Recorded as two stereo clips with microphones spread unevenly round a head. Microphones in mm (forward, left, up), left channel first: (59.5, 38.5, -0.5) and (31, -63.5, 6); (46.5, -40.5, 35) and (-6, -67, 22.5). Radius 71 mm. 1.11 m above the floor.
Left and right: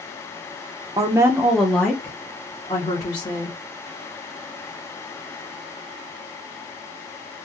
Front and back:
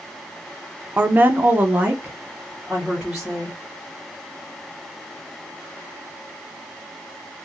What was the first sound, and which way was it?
A woman speaking, 155° right.